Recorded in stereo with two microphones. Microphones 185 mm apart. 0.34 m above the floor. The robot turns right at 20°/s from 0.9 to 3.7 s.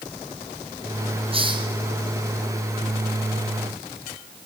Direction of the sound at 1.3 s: 30° right (ahead or behind).